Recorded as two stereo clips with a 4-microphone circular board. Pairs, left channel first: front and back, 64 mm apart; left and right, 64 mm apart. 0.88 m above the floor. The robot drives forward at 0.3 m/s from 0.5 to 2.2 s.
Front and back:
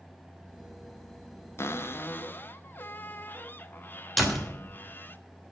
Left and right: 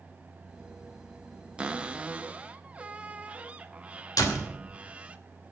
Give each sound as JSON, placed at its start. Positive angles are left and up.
{"t": 1.6, "sound": "a cupboard door", "azimuth_deg": -25, "distance_m": 0.8}
{"t": 4.2, "sound": "a door slam", "azimuth_deg": 90, "distance_m": 2.5}